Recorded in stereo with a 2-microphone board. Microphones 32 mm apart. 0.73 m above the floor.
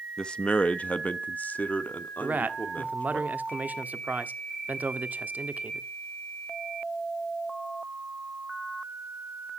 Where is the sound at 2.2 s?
70° right (ahead or behind), 1.3 m.